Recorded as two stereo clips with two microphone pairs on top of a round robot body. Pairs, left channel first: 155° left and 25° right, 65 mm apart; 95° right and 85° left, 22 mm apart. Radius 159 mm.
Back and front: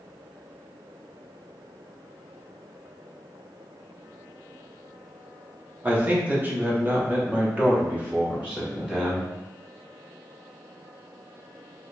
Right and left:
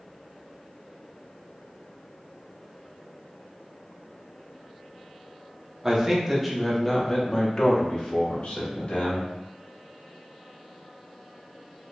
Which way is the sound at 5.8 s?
35° left.